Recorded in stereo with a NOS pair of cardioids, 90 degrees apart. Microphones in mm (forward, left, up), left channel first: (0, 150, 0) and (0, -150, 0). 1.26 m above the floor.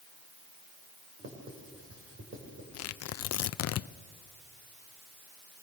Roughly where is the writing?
Ahead right.